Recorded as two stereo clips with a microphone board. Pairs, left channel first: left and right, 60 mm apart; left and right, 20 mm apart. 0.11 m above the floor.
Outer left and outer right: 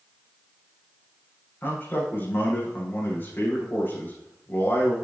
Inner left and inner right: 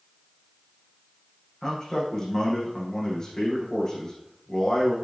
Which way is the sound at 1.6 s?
35° left (ahead or behind).